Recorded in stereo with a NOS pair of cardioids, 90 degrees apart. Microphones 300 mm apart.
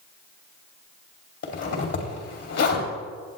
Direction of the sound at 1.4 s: 50° left.